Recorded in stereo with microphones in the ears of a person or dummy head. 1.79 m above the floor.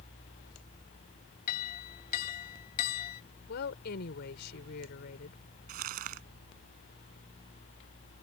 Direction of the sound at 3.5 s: 55° left (ahead or behind).